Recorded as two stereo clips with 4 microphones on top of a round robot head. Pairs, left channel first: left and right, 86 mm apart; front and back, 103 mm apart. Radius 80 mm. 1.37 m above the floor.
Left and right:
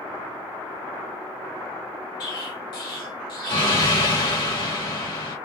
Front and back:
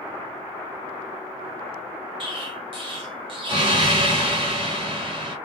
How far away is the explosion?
About 1.8 m.